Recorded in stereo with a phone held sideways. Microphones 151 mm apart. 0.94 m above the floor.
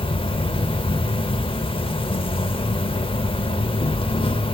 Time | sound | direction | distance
0.0 | an insect | 35° left (ahead or behind) | 0.7 m